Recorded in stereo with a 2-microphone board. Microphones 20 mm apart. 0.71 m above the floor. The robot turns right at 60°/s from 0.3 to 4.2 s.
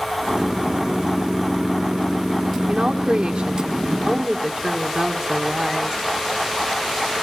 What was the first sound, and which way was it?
A woman speaking, 140° right.